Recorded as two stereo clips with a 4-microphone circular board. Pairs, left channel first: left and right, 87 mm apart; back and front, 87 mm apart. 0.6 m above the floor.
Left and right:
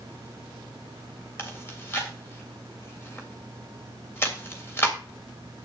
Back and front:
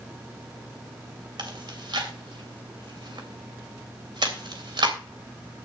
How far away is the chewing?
About 3 m.